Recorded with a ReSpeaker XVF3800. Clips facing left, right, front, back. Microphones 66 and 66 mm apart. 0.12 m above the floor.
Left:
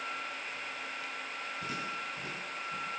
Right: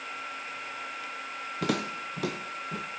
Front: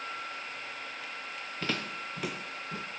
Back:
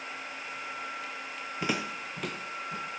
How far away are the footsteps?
About 1.3 m.